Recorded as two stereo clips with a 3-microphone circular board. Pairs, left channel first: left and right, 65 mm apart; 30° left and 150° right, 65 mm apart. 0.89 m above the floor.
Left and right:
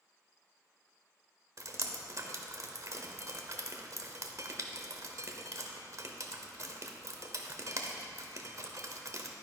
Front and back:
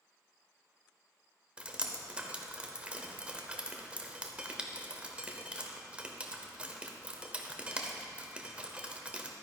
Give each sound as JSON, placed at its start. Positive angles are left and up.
{"t": 1.6, "sound": "dripping", "azimuth_deg": -80, "distance_m": 0.8}